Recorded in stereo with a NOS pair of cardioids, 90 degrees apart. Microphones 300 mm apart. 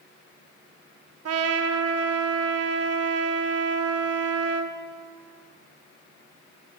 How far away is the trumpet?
About 0.9 m.